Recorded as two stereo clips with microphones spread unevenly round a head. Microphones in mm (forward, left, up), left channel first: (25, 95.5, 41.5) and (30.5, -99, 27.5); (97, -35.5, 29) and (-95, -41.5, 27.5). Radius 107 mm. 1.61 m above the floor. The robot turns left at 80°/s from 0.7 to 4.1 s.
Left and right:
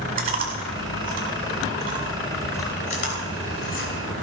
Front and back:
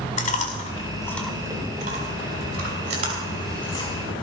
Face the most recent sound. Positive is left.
turn(degrees=45)